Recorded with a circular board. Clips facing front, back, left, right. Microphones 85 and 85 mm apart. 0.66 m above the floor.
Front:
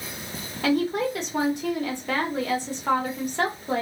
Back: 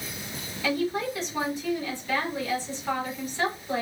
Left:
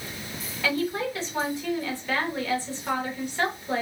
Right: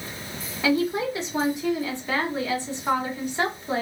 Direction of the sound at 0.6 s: 20° right.